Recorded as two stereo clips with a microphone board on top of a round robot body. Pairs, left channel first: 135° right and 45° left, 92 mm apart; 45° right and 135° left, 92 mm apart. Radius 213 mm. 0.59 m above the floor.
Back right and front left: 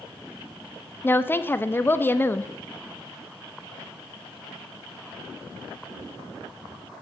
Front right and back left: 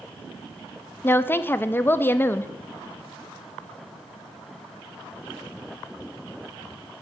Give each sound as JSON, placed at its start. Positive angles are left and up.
{"t": 1.0, "sound": "a woman speaking", "azimuth_deg": -90, "distance_m": 0.6}